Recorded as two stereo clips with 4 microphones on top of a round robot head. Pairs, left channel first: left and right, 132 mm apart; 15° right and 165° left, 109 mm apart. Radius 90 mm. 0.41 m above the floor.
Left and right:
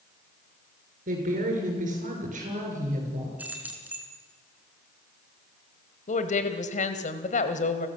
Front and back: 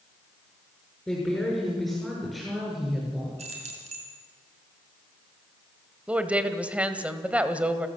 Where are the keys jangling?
170° right, 4.5 m.